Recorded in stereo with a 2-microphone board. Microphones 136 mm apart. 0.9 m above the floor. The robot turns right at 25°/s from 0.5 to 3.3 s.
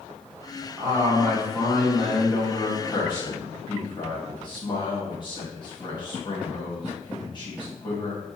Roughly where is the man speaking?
Ahead.